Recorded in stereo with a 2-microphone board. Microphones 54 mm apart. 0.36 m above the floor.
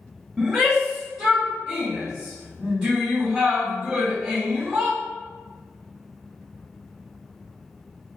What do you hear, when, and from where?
0.4 s a shout: 15° right (ahead or behind), 1.7 m